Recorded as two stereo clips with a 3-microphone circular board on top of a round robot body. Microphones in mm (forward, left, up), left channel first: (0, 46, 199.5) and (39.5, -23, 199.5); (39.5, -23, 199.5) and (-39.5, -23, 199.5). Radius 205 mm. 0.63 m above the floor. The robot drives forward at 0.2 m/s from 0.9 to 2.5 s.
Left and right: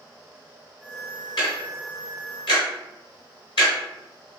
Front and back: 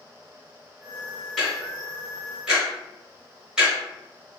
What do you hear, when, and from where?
1.4 s ticking: 85° left, 0.9 m; by 3.7 s 100° left, 1.0 m